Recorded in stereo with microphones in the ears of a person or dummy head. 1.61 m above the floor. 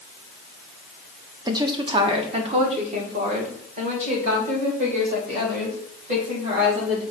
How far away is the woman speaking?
About 0.8 m.